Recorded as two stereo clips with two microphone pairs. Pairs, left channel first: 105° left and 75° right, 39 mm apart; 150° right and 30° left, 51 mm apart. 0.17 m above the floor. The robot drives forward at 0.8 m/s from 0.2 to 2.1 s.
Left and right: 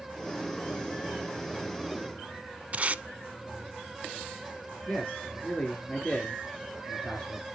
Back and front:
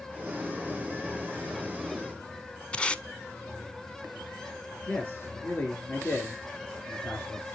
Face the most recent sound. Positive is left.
turn(degrees=155)